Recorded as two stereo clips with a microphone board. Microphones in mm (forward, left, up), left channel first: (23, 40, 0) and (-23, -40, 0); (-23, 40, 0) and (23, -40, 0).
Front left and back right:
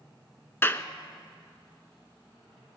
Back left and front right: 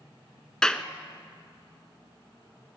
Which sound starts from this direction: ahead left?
A clap, at 0.6 s.